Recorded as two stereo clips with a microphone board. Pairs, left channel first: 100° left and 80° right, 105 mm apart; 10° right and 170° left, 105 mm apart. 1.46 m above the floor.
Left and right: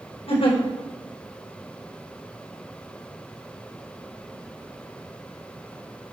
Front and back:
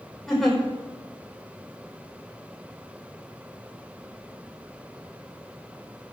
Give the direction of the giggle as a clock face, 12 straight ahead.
9 o'clock.